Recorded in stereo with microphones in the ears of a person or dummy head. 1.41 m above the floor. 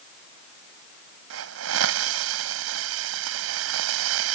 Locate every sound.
1.3 s a hiss: 70° right (ahead or behind)